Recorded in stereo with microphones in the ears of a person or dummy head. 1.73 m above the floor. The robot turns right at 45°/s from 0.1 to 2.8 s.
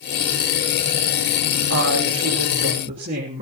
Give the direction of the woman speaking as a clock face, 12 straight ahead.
3 o'clock.